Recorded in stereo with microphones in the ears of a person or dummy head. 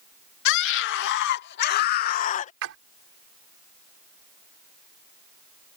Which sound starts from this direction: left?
A scream, at 0.5 s.